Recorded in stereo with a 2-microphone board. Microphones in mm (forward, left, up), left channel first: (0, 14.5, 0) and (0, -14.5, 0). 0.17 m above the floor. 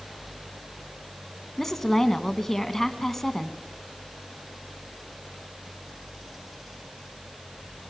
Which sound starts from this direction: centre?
A woman speaking, at 1.6 s.